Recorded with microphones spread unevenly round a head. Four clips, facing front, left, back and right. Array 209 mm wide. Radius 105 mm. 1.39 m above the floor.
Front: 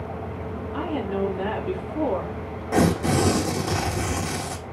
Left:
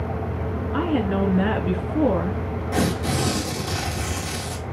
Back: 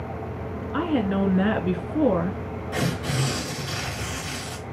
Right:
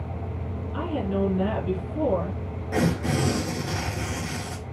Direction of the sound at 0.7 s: 130° left.